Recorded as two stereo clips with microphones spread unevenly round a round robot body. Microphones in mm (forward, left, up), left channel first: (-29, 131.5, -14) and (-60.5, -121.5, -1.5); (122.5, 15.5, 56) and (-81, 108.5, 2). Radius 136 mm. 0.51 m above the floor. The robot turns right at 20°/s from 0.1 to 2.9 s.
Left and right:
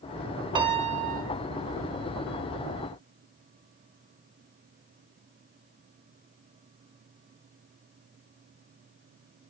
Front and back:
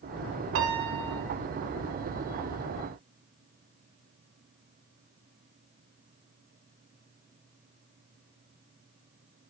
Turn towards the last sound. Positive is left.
turn(degrees=-125)